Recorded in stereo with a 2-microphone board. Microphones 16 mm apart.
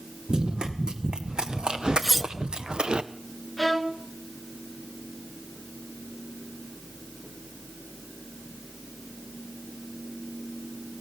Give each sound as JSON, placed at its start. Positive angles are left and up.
{"t": 0.3, "sound": "running footsteps", "side_deg": -65, "distance_m": 2.5}
{"t": 2.0, "sound": "cutlery clinking", "side_deg": 5, "distance_m": 0.6}
{"t": 3.6, "sound": "a violin", "side_deg": -5, "distance_m": 1.3}